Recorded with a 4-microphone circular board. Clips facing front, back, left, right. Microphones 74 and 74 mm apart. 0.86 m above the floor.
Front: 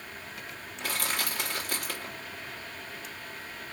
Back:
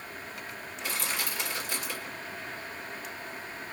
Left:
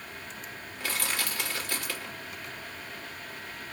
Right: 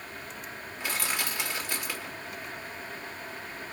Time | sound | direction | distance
0.8 | crushing | 20° right | 2.0 m